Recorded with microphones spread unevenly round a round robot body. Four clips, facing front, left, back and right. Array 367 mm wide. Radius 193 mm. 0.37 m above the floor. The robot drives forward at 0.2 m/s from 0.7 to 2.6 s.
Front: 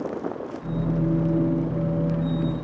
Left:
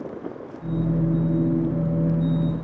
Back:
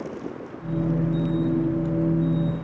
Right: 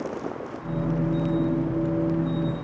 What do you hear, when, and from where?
Only background noise.